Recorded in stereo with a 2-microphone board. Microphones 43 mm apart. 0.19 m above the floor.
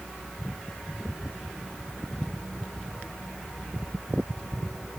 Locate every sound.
Only background noise.